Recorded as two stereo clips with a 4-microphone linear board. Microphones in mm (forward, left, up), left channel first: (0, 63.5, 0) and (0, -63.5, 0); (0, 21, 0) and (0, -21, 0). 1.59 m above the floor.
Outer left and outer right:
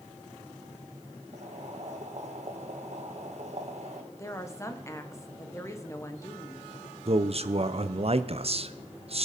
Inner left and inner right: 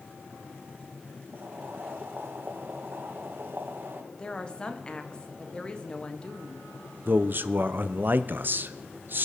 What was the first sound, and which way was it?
Boiling, 60° right (ahead or behind).